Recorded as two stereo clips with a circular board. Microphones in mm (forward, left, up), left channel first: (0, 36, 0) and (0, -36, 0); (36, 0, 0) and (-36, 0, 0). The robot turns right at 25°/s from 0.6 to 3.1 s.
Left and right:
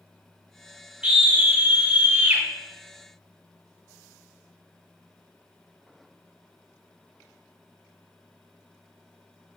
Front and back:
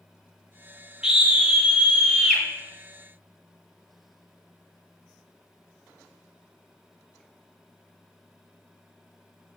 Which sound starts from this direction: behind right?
A scream, at 1.0 s.